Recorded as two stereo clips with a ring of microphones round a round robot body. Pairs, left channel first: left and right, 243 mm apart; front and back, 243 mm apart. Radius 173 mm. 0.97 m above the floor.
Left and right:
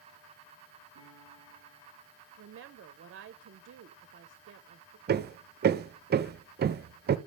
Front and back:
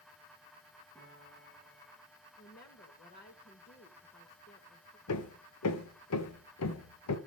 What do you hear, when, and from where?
0.9 s a piano: 80° left, 6 m
2.4 s a woman speaking: 55° right, 0.5 m
5.1 s hammering: 35° right, 0.6 m